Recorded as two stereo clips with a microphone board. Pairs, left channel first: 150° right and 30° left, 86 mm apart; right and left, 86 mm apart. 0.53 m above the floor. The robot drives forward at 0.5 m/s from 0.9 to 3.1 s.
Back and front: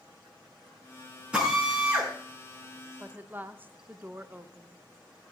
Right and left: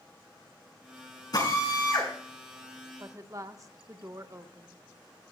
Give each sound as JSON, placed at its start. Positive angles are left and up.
{"t": 1.3, "sound": "a drill", "azimuth_deg": -50, "distance_m": 6.5}
{"t": 3.0, "sound": "a woman speaking", "azimuth_deg": 75, "distance_m": 0.8}